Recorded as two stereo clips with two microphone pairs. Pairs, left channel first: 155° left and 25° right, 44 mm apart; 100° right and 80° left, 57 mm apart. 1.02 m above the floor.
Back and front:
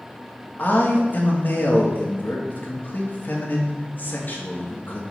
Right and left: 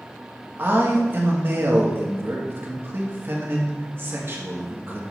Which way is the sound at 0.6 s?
120° left.